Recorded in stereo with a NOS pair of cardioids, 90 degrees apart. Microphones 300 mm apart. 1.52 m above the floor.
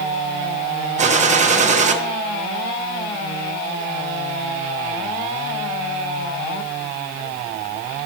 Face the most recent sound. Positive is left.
turn(degrees=-25)